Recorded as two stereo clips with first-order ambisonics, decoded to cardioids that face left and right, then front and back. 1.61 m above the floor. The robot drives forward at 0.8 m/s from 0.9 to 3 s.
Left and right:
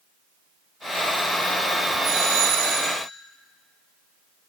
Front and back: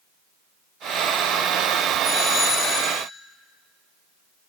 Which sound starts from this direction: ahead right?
A doorbell, at 2.0 s.